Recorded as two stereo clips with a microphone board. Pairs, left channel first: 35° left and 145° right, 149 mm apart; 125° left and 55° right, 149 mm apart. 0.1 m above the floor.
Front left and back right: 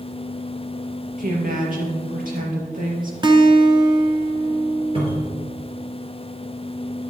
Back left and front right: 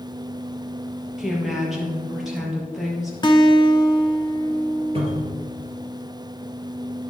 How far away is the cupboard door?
About 3 m.